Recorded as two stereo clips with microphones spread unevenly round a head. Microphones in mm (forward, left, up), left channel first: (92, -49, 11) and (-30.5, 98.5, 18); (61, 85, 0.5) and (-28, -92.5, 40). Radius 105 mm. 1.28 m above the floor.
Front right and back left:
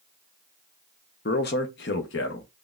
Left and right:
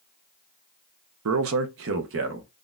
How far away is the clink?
I don't hear a clink.